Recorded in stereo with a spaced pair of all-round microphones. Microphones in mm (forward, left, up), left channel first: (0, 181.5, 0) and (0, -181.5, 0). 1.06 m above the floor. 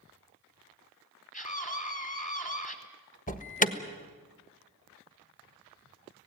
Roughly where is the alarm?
Left.